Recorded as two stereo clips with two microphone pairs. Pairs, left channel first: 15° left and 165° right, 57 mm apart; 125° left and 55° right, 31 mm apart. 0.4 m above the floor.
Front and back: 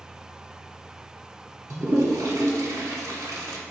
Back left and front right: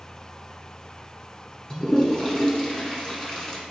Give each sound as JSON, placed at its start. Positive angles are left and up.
{"t": 1.7, "sound": "a toilet flushing", "azimuth_deg": -170, "distance_m": 1.0}